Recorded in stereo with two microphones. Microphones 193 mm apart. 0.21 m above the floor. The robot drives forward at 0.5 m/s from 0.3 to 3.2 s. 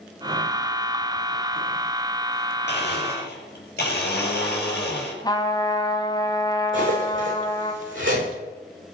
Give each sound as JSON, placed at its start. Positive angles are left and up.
{"t": 2.7, "sound": "a blender", "side_deg": 60, "distance_m": 5.5}
{"t": 5.2, "sound": "a trumpet", "side_deg": 20, "distance_m": 1.8}
{"t": 6.7, "sound": "cutlery clinking", "side_deg": -85, "distance_m": 8.5}